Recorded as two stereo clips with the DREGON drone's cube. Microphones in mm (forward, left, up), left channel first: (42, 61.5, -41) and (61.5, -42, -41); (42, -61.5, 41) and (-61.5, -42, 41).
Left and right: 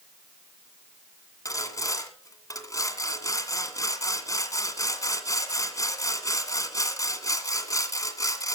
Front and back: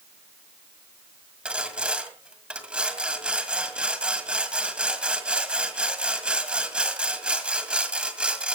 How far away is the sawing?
About 1.9 m.